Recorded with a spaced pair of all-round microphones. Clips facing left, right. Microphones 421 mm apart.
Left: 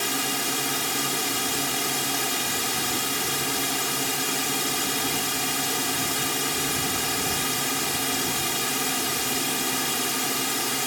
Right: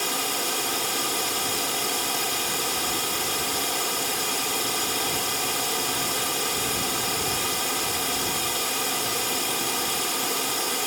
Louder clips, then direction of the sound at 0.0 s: Left 1 dB; 35° left (ahead or behind).